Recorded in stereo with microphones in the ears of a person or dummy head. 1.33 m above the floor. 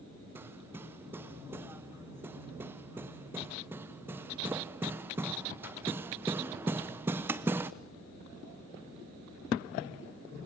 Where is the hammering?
15° right (ahead or behind), 0.6 m.